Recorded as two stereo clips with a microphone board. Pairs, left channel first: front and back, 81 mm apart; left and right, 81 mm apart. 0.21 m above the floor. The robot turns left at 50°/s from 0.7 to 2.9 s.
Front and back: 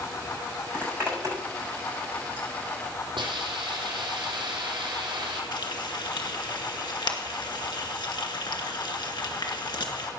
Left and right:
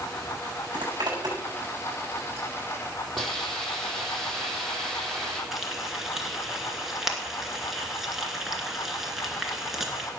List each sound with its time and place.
0.7 s a zipper: 100° right, 7 m; by 2.5 s 170° left, 7 m
3.2 s a hiss: straight behind, 4 m
5.5 s frying: 5° right, 2 m